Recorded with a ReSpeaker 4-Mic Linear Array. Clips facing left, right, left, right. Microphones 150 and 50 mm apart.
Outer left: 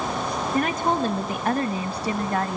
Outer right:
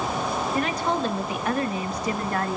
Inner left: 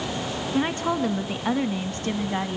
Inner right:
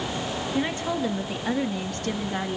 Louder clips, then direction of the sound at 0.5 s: Outer left 4 dB, inner left 3 dB; 50° left (ahead or behind).